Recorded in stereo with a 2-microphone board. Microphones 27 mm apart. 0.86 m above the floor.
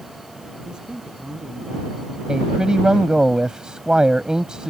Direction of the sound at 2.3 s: 25° right (ahead or behind).